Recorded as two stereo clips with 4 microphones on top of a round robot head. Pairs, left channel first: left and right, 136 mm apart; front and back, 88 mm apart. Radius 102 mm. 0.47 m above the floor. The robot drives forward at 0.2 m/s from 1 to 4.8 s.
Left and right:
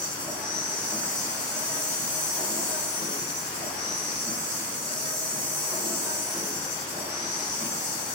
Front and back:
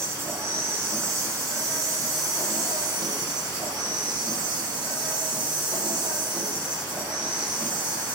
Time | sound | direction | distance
0.0 | an insect | 170° left | 1.0 m